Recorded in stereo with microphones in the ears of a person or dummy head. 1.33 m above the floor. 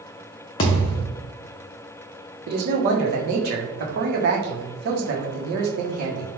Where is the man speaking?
55° right (ahead or behind), 1.0 m.